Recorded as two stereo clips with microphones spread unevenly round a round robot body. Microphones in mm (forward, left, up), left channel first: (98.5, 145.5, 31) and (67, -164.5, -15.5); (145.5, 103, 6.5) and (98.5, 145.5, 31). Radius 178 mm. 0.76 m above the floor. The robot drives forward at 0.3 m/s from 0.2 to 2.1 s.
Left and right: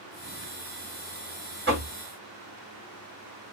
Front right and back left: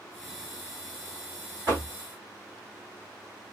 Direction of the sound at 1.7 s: 150° right.